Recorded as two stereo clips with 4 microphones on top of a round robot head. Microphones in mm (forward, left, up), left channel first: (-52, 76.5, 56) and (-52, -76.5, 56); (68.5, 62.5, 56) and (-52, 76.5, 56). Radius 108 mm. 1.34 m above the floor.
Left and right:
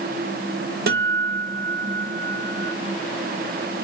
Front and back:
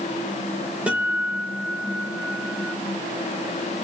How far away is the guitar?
About 1.8 m.